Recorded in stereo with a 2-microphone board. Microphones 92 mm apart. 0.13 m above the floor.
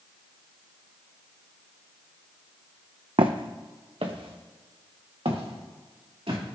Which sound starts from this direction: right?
Footsteps, at 3.2 s.